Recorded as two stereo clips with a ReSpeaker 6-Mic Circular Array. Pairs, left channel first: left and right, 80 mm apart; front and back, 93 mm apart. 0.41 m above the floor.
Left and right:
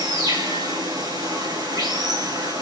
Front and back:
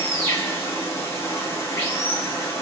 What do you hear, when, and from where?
0.0 s running water: 60° right, 5.5 m